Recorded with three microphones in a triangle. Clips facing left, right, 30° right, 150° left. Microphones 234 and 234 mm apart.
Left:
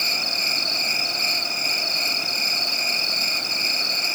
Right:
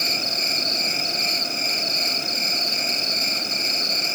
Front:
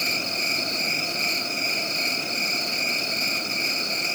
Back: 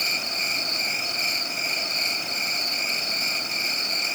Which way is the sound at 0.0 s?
110° left.